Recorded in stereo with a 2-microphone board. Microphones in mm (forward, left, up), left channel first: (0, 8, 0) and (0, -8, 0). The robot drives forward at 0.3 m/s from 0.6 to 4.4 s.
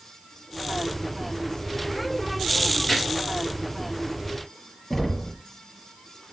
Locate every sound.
2.9 s a gunshot: 15° left (ahead or behind), 5 m
4.9 s knocking: 20° left (ahead or behind), 1.6 m